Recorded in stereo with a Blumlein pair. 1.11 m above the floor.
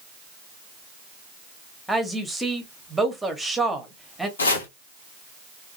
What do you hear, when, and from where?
1.9 s a woman speaking: 5° right, 0.8 m
4.4 s chopping: 70° left, 0.8 m